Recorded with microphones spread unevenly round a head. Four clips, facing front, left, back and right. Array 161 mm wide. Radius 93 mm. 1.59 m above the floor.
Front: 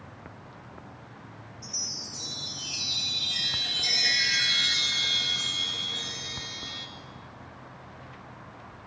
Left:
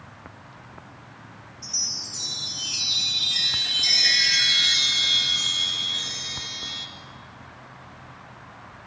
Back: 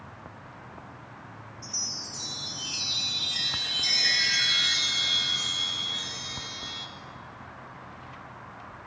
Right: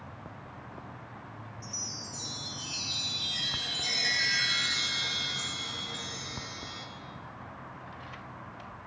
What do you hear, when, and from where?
1.6 s a chime: 25° right, 3 m